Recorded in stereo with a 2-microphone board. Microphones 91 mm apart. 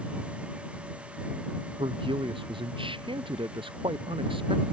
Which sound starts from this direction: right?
A man speaking, at 1.8 s.